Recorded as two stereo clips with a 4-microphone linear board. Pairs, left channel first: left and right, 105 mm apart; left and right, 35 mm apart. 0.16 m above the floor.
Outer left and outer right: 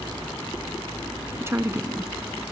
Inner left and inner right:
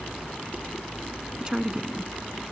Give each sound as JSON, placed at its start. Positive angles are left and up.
{"t": 1.4, "sound": "a woman speaking", "side_deg": -25}